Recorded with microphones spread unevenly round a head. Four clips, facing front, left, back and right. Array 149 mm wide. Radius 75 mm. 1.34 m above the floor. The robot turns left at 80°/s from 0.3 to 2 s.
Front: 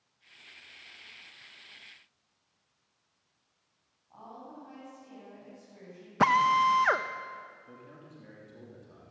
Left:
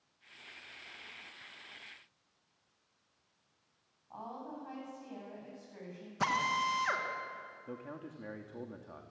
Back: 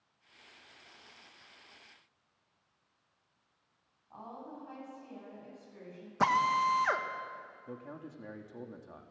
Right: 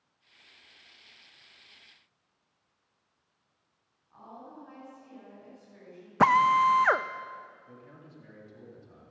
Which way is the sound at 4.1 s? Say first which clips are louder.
Left 3 dB, back 1 dB; 105° left.